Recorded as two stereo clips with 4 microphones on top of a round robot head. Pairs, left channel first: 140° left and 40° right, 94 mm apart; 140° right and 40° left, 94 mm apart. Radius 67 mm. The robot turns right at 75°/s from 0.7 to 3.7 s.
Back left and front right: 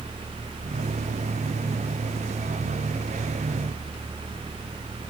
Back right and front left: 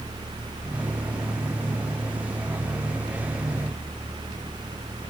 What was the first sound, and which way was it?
Only background noise.